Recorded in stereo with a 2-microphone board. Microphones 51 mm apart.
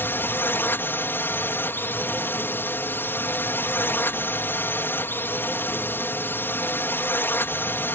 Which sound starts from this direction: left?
A drone, at 0.0 s.